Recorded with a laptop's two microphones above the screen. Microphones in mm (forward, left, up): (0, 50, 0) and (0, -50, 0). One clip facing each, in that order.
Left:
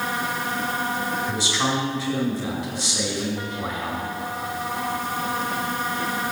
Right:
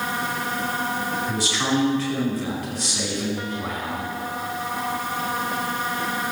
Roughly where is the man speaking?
Left.